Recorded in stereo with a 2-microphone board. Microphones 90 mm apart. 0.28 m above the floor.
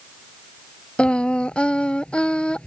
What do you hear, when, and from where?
1.0 s singing: 10° left (ahead or behind)